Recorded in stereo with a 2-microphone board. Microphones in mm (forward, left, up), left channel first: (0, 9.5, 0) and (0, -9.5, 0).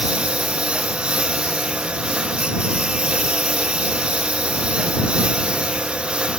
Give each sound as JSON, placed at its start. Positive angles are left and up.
{"t": 0.0, "sound": "a lawn mower", "side_deg": -70}